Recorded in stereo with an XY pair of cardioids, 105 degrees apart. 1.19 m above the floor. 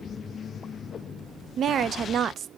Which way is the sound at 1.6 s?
55° right.